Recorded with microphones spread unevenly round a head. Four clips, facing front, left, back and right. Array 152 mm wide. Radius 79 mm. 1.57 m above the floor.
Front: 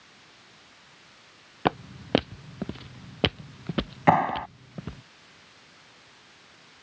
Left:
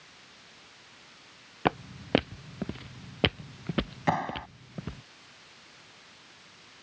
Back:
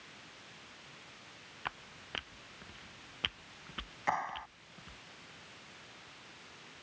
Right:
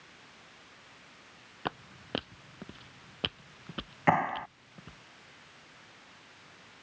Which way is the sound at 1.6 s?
35° left.